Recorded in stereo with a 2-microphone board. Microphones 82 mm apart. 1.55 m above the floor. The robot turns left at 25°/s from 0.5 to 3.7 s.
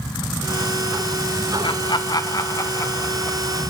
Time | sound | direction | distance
1.6 | laughter | 65° left (ahead or behind) | 1.1 m